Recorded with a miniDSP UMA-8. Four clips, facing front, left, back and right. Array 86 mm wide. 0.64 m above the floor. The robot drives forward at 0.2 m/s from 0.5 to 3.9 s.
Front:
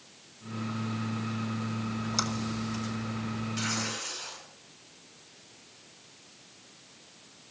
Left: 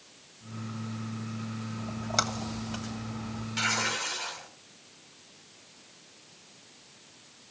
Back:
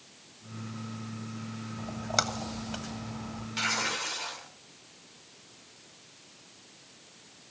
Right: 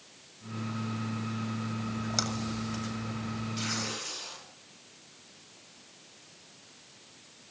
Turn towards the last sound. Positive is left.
turn(degrees=145)